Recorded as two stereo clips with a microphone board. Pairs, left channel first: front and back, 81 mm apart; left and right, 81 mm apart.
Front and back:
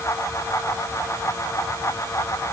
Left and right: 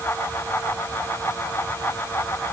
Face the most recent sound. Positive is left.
No sound to turn to.